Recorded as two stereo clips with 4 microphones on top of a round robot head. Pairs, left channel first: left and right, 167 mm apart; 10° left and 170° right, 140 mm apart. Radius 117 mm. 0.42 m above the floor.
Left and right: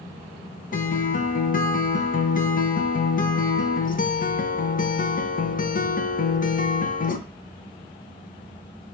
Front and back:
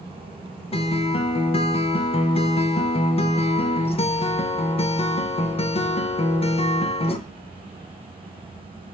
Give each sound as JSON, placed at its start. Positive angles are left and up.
{"t": 0.7, "sound": "a guitar", "azimuth_deg": 60, "distance_m": 0.5}